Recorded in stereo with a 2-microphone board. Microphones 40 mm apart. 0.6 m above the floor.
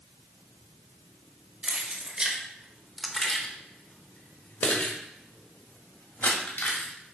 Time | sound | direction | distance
1.6 | keys jangling | 30° right (ahead or behind) | 1.4 m